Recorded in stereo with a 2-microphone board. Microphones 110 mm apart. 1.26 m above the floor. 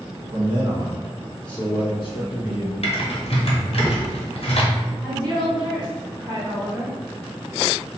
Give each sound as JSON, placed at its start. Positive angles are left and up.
{"t": 0.3, "sound": "a man speaking", "side_deg": -50, "distance_m": 0.8}
{"t": 2.8, "sound": "typing on a keyboard", "side_deg": 60, "distance_m": 0.8}
{"t": 5.0, "sound": "a woman speaking", "side_deg": -40, "distance_m": 1.3}